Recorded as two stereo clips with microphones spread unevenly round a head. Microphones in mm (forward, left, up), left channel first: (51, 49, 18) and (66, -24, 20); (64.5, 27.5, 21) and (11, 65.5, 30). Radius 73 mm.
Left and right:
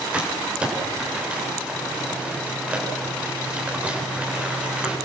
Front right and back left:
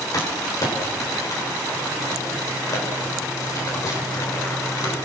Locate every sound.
0.1 s crumpling: 5° right, 8 m